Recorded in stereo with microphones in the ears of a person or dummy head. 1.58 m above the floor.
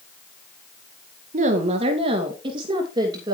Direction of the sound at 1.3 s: 40° right (ahead or behind).